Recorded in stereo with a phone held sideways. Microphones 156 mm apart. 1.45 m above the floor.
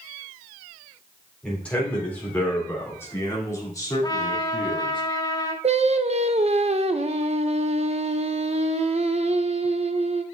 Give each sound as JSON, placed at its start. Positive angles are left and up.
{"t": 1.4, "sound": "a man speaking", "side_deg": 5, "distance_m": 4.0}
{"t": 4.0, "sound": "a trumpet", "side_deg": 25, "distance_m": 1.1}
{"t": 5.6, "sound": "singing", "side_deg": -45, "distance_m": 0.6}